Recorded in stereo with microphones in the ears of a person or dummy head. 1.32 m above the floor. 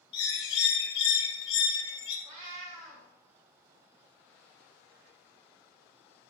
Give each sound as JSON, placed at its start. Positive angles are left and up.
{"t": 0.1, "sound": "a bird", "side_deg": 70, "distance_m": 3.0}
{"t": 2.2, "sound": "a cat meowing", "side_deg": -40, "distance_m": 2.5}